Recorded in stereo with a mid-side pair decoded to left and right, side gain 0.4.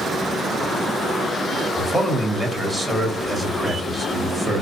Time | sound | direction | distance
1.8 | a man speaking | 5° right | 2 m